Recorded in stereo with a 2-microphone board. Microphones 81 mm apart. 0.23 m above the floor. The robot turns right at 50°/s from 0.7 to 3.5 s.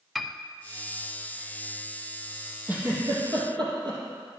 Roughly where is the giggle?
Centre.